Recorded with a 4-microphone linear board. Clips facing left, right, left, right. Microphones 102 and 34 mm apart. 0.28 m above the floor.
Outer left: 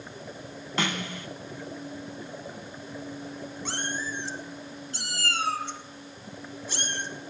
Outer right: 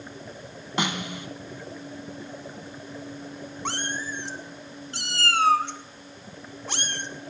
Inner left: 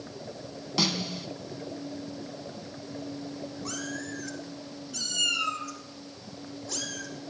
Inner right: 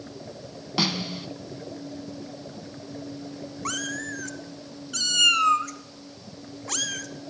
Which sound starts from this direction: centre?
A snare drum, at 0.8 s.